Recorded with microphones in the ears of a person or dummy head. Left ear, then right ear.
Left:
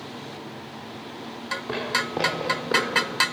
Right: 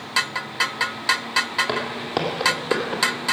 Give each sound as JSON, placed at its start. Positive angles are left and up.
{"t": 1.7, "sound": "footsteps", "side_deg": -65, "distance_m": 3.0}